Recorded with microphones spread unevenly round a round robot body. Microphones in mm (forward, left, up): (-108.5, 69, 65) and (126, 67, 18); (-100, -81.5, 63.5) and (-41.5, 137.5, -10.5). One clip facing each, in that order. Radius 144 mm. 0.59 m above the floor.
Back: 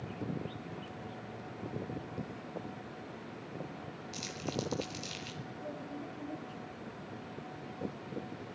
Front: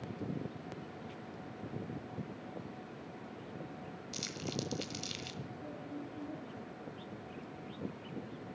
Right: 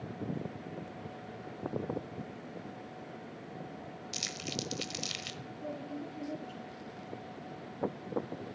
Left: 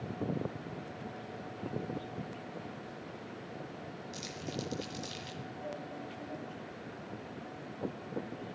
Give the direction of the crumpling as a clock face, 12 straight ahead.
3 o'clock.